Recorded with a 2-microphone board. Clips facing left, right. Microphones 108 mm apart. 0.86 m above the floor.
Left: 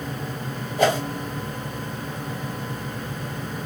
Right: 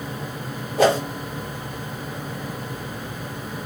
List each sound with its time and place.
0.8 s a whoosh: 80° right, 1.6 m